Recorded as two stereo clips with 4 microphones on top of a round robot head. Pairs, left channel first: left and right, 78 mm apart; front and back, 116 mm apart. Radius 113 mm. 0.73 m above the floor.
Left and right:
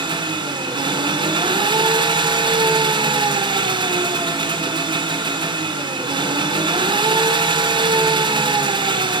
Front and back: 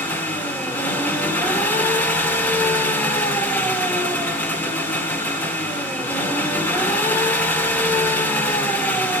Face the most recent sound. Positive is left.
turn(degrees=-75)